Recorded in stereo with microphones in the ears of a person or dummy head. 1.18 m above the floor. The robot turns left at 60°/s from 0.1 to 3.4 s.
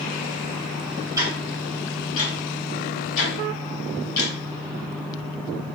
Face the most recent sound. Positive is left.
turn(degrees=55)  # may be behind; listen again after turning